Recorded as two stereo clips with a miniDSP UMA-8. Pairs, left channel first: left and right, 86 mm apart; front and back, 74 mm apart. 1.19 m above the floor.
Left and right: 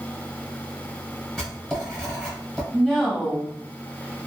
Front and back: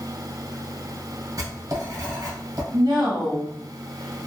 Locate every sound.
1.4 s writing: 175° left, 1.2 m
2.7 s a woman speaking: 175° left, 1.2 m